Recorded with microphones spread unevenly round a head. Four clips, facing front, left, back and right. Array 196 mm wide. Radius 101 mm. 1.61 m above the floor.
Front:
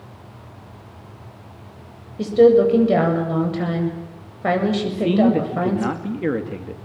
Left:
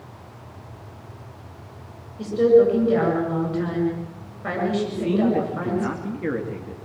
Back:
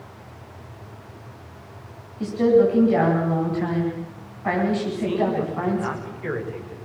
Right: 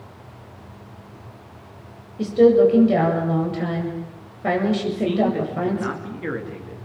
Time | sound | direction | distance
2.2 | a woman speaking | 35° right | 8 m
4.9 | a man speaking | straight ahead | 3.5 m